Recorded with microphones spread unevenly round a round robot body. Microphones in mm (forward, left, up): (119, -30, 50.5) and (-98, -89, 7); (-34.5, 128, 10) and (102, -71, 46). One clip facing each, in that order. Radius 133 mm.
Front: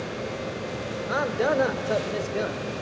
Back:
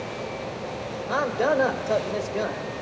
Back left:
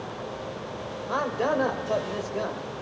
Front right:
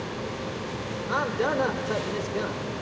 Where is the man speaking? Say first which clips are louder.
Back 1 dB, even; 80° right, 1.4 m.